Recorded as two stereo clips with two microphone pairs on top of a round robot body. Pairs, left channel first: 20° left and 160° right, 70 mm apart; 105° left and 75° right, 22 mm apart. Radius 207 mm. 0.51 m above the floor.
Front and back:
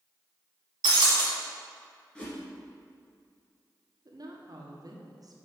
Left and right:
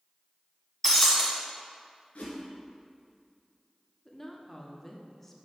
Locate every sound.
0.8 s breaking glass: 175° right, 1.2 m
2.1 s a whoosh: 95° left, 2 m
4.0 s a woman speaking: 175° left, 1.5 m